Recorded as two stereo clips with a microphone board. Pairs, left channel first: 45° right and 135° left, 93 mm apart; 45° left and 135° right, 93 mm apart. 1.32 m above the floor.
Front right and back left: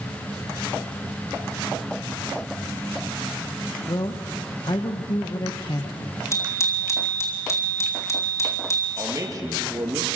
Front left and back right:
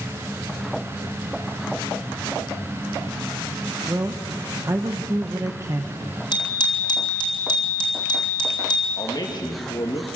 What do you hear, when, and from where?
3.9 s a man speaking: 80° right, 1.0 m
6.3 s a bicycle bell: 10° left, 3.5 m
9.0 s a man speaking: 85° left, 2 m